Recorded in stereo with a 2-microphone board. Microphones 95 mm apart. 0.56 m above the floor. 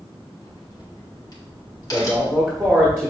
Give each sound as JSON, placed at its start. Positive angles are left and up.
{"t": 0.4, "sound": "a crack", "side_deg": 40, "distance_m": 1.6}
{"t": 1.9, "sound": "a man speaking", "side_deg": -30, "distance_m": 0.9}